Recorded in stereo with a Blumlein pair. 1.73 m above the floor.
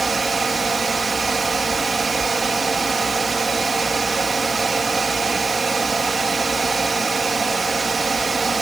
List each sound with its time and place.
0.0 s a fan: 15° right